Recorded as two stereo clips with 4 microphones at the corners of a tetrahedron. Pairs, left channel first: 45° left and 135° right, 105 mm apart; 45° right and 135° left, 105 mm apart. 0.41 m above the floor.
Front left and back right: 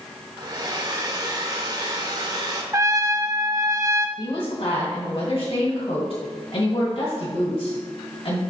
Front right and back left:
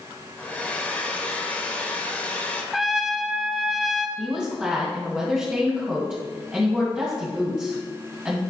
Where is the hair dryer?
115° right, 0.9 m.